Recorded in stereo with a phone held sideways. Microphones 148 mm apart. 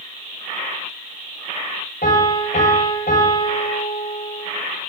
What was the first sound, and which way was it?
A piano, 70° left (ahead or behind).